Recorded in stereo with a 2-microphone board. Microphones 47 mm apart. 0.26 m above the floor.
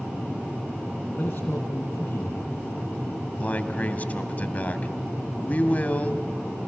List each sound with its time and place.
1.2 s a man speaking: 30° left (ahead or behind), 2.5 m
3.4 s a man speaking: 35° left (ahead or behind), 1.5 m